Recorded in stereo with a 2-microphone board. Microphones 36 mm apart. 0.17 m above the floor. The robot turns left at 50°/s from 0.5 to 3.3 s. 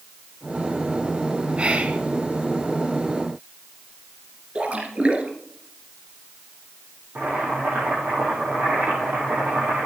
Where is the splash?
35° right (ahead or behind), 1.9 m.